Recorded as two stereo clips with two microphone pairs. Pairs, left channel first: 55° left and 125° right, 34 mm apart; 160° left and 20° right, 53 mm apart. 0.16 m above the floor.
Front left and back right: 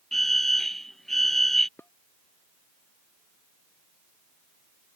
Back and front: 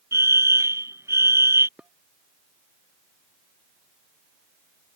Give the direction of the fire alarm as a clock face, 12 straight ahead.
1 o'clock.